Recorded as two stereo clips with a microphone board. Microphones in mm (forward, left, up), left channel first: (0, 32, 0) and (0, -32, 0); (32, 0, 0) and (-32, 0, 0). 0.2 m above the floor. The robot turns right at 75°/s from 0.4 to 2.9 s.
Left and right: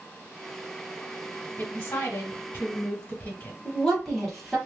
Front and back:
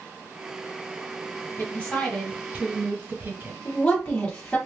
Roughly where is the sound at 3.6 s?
Ahead.